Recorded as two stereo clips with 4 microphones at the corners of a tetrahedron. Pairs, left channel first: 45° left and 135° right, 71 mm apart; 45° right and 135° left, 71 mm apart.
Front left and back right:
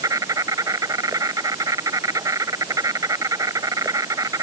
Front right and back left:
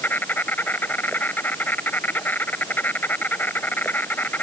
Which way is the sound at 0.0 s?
105° right.